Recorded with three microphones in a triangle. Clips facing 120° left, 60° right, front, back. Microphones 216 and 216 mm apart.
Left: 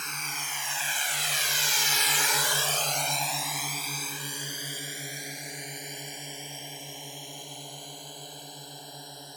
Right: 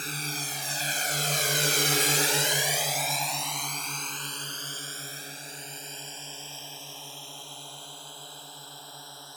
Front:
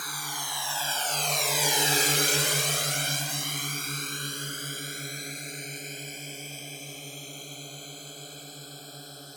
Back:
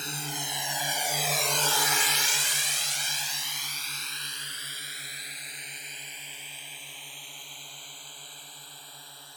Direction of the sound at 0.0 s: 115° right.